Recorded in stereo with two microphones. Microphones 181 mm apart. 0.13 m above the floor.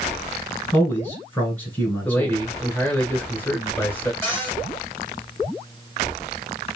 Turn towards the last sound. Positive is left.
turn(degrees=10)  # may be behind; listen again after turning